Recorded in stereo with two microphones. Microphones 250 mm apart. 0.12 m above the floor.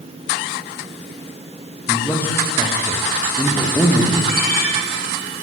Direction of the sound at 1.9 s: 10° left (ahead or behind).